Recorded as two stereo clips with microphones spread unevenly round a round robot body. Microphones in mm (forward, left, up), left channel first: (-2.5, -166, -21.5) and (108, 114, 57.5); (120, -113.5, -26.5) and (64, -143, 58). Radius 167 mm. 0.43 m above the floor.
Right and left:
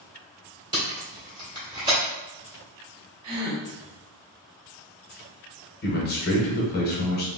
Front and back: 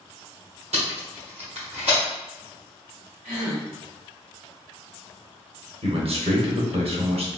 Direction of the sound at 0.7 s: 155° left.